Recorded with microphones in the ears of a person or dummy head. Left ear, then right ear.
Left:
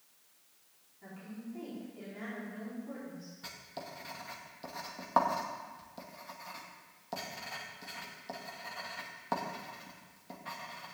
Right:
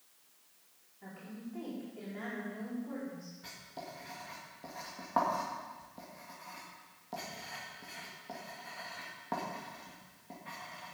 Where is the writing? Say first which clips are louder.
Left 2 dB; 35° left (ahead or behind), 1.9 m.